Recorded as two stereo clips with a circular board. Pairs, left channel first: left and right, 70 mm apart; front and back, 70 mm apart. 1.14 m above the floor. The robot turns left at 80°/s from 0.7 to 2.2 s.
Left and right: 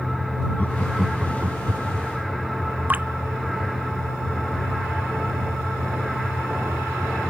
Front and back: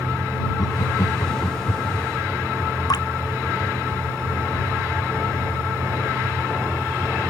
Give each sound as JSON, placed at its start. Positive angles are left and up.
{"t": 0.6, "sound": "laughter", "azimuth_deg": 25}
{"t": 2.9, "sound": "dripping", "azimuth_deg": -25}